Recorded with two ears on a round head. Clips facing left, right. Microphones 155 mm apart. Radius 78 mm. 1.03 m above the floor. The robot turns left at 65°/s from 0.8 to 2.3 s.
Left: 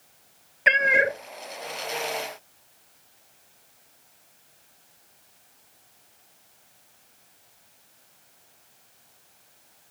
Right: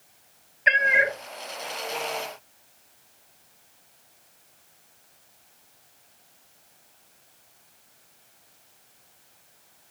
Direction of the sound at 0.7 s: 55° left (ahead or behind).